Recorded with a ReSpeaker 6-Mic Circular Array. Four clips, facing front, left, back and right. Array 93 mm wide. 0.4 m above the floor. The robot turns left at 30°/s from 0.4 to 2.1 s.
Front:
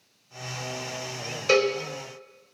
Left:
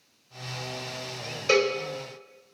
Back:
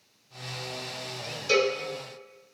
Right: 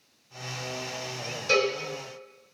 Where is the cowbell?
40° left, 1.4 m; by 1.7 s 30° left, 1.4 m.